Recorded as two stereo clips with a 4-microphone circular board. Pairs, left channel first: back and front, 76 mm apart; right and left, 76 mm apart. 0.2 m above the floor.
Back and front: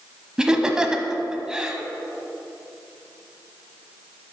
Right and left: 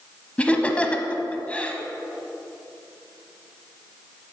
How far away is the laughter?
About 1.0 m.